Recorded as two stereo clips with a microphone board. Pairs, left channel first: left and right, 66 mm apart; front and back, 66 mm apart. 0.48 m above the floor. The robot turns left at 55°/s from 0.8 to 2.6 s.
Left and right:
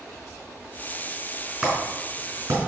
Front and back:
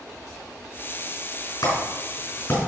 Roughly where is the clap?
Ahead.